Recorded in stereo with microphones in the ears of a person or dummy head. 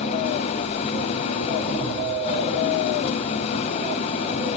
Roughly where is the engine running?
Left.